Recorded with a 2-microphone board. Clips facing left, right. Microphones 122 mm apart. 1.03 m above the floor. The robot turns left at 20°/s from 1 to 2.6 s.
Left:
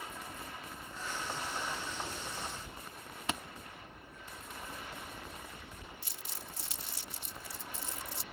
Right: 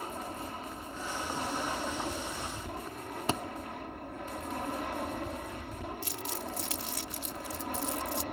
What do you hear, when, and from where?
0.0 s an aircraft: 50° right; by 8.3 s 80° right
3.3 s a thud: 35° right (ahead or behind)
6.0 s crumpling: 85° right